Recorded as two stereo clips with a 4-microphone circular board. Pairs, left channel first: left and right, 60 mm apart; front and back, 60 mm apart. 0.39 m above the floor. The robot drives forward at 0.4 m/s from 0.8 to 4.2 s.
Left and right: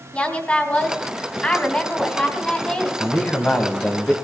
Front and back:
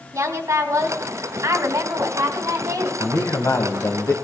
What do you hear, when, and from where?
0.1 s a woman speaking: 150° left, 2.5 m; by 2.9 s 160° left, 3 m
3.0 s a man speaking: 25° left, 2.5 m; by 4.1 s 35° left, 1.9 m